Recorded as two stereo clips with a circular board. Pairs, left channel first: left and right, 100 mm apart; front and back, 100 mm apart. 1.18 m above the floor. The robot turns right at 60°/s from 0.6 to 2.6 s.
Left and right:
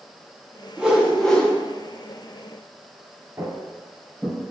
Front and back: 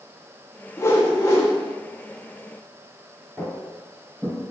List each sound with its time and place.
0.8 s a whoosh: 20° right, 0.6 m; by 1.5 s 25° left, 0.6 m
3.4 s footsteps: 55° right, 1.2 m; by 4.4 s 175° right, 1.2 m